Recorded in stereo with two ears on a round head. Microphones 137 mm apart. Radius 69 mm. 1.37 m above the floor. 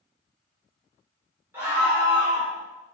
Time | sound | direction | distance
1.5 | a scream | 15° right (ahead or behind) | 4 m